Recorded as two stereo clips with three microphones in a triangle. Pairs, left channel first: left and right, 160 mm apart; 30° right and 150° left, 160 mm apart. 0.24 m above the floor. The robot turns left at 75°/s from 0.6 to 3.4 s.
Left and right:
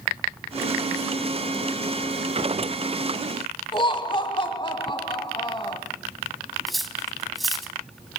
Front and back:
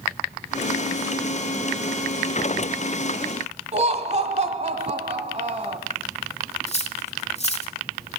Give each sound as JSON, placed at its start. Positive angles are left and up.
{"t": 3.7, "sound": "laughter", "azimuth_deg": 130, "distance_m": 1.4}
{"t": 6.7, "sound": "cutlery clinking", "azimuth_deg": 0, "distance_m": 1.2}